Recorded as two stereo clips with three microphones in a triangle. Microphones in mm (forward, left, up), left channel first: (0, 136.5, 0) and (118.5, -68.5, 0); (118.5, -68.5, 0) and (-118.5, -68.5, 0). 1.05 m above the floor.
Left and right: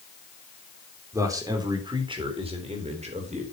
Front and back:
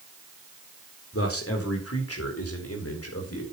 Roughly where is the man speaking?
Ahead.